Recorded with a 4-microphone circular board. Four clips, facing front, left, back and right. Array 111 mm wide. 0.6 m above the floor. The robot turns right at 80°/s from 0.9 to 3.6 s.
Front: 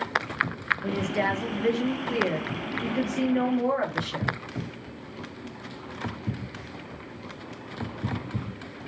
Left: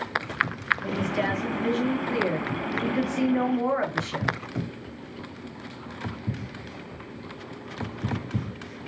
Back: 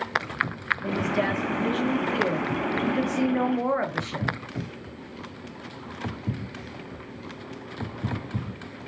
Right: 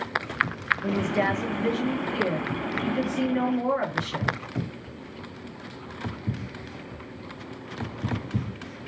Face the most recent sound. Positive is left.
turn(degrees=150)